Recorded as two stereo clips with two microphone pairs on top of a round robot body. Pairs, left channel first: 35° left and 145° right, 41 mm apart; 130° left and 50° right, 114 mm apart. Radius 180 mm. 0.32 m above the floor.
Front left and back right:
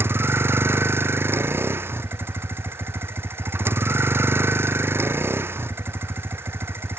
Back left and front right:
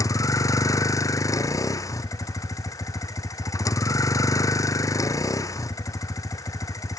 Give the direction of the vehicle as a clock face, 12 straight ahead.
6 o'clock.